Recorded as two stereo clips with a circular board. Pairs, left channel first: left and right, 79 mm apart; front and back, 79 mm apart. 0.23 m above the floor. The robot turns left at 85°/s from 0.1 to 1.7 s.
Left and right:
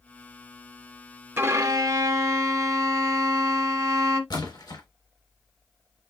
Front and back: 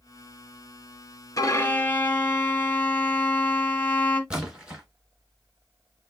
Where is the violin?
35° right, 1.0 m; by 4.2 s 65° right, 1.0 m.